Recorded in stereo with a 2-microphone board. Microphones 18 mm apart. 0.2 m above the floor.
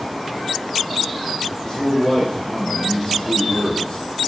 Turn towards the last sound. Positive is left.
turn(degrees=25)  # may be behind; listen again after turning